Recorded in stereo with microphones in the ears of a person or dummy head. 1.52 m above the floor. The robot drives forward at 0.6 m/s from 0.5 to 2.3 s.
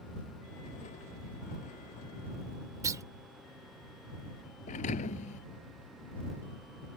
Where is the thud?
35° left (ahead or behind).